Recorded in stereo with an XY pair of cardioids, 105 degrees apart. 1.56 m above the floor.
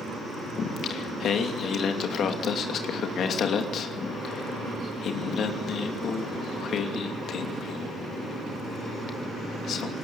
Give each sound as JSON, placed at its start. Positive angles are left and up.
{"t": 0.6, "sound": "singing", "azimuth_deg": 60, "distance_m": 3.0}